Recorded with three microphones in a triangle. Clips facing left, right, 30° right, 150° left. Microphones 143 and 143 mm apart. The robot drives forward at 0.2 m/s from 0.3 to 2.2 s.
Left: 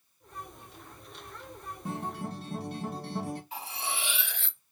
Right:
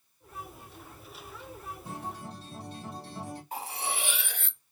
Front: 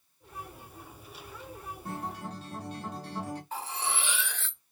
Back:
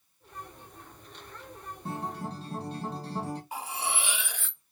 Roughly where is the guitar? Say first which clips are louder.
Left 6 dB, back 3 dB; left.